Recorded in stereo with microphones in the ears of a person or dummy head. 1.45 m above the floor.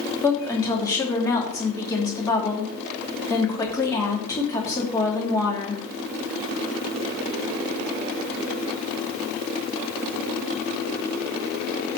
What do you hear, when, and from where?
0.2 s a woman speaking: 15° left (ahead or behind), 2.5 m